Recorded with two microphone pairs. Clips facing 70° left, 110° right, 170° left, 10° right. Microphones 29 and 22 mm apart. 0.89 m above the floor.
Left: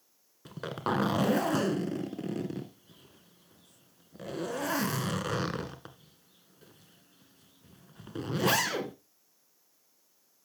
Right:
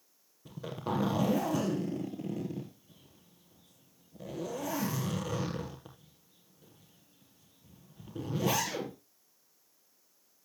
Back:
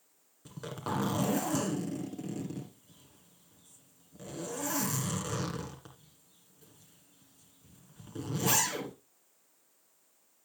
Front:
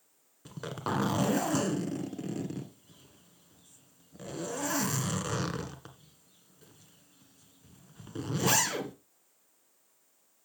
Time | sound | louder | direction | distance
0.5 | a zipper | left 4 dB, front 3 dB | 60° left | 1.8 m